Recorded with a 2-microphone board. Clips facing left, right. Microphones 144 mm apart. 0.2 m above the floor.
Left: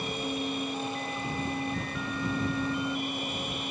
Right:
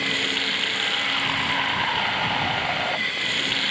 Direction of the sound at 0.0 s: 80° right.